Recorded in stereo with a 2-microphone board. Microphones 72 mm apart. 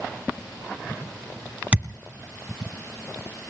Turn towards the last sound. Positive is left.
turn(degrees=-15)  # may be behind; listen again after turning